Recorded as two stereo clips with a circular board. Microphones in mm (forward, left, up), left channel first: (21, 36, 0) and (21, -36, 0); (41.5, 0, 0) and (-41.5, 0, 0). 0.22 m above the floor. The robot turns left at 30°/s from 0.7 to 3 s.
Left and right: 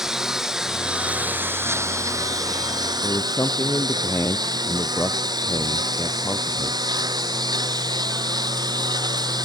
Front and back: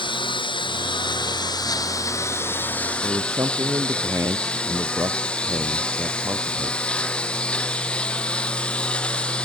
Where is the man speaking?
135° left.